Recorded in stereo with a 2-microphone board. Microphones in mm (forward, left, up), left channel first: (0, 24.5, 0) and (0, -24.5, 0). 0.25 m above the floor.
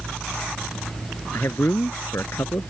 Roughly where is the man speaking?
Left.